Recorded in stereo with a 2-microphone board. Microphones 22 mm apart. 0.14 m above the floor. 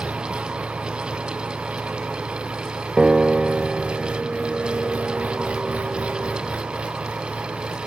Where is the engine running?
85° right.